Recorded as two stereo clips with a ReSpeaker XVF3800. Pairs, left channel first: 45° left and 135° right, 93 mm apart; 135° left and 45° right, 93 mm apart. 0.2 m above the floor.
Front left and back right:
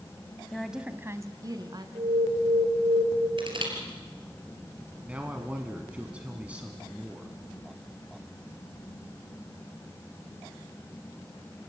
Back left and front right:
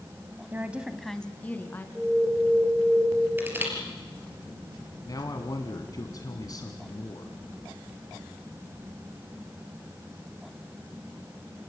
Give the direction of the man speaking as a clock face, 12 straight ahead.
7 o'clock.